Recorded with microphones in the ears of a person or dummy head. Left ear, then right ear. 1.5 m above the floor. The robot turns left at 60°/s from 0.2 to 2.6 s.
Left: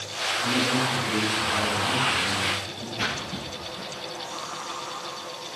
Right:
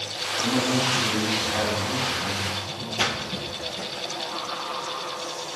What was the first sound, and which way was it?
A man speaking, 75° right.